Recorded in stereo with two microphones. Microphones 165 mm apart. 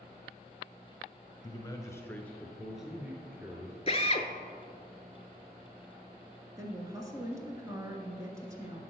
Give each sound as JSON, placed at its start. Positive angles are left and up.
{"t": 1.4, "sound": "a man speaking", "side_deg": 25, "distance_m": 1.1}
{"t": 3.9, "sound": "a drill", "side_deg": 40, "distance_m": 0.6}
{"t": 6.6, "sound": "a woman speaking", "side_deg": -20, "distance_m": 1.4}